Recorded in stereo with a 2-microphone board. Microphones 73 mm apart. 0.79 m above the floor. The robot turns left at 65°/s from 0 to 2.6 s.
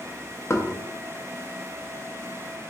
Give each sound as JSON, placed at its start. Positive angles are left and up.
{"t": 0.5, "sound": "knocking", "side_deg": 35, "distance_m": 0.7}